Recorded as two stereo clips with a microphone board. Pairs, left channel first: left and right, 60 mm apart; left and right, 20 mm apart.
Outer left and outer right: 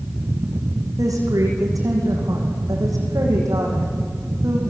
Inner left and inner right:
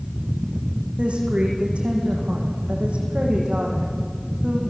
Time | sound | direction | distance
1.0 | a woman speaking | 65° right (ahead or behind) | 9 m